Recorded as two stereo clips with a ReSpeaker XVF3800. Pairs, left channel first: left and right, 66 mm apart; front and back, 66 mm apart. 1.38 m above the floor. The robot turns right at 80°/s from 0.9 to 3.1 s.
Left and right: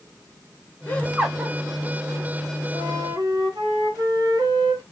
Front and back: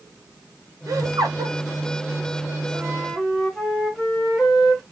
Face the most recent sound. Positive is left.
turn(degrees=-85)